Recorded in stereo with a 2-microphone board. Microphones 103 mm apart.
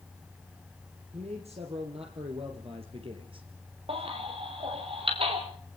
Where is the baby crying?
60° right (ahead or behind), 5.5 m.